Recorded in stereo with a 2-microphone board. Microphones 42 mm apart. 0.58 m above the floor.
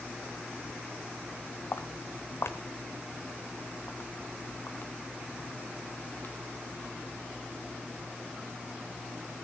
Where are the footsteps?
60° left (ahead or behind), 1.4 m; by 6.3 s 40° left (ahead or behind), 5 m.